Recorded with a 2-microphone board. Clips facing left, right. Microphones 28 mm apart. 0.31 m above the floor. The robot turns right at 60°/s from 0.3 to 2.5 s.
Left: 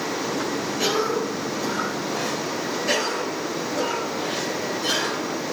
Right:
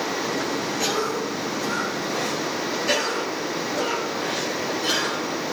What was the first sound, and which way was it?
A cough, 25° left (ahead or behind).